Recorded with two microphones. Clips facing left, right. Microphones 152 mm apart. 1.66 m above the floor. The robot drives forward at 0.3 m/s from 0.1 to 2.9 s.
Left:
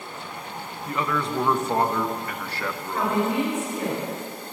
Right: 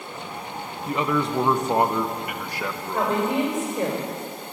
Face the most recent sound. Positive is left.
turn(degrees=-85)